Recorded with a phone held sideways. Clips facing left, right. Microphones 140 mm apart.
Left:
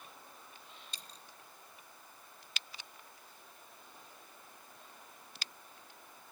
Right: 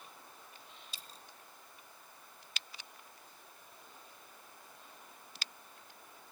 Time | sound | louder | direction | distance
0.9 | a dropped coin | even | 5° right (ahead or behind) | 1.7 m